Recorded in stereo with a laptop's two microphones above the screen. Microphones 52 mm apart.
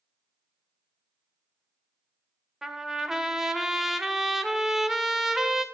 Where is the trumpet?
10° right (ahead or behind), 0.8 m.